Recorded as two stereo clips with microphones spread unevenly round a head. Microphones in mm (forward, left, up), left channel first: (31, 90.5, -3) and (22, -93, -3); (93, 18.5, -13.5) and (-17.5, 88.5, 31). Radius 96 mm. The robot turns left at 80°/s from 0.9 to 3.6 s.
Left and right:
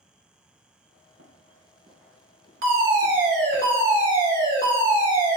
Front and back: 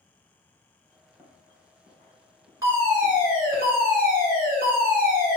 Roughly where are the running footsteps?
Behind right.